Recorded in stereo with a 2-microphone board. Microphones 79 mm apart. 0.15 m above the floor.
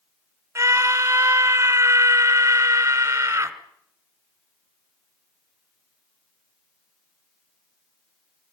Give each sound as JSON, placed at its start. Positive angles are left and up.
{"t": 0.6, "sound": "a scream", "side_deg": -30, "distance_m": 1.6}